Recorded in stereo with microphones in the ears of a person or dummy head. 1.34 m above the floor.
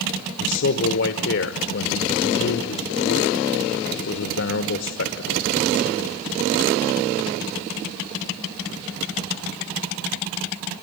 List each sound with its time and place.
0.4 s a man speaking: 60° left (ahead or behind), 1.2 m